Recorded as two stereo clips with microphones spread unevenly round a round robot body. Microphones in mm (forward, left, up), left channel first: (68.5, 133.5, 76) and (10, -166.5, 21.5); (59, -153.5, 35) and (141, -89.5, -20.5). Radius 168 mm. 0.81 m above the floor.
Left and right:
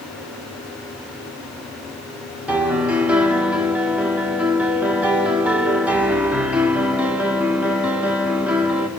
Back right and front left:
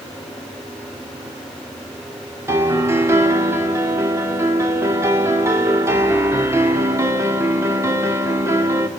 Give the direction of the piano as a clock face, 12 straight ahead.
1 o'clock.